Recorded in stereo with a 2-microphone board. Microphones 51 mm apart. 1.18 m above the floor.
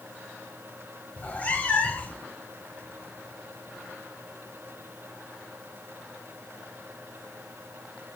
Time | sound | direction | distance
1.2 | a cat meowing | 30° left (ahead or behind) | 1.1 m